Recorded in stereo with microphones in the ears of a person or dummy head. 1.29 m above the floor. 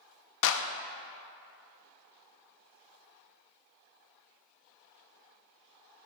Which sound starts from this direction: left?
A clap, at 0.4 s.